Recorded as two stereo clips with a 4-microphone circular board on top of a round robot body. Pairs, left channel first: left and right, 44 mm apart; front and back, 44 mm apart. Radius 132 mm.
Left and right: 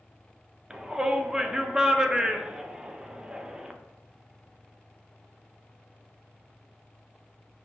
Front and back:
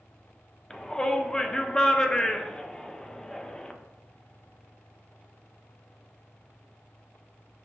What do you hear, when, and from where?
0.7 s a shout: 40° right, 0.6 m